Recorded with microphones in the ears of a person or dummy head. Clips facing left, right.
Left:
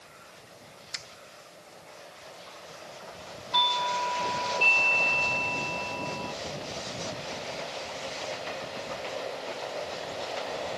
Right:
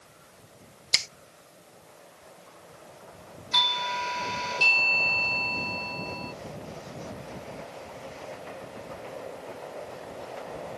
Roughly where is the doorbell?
Right.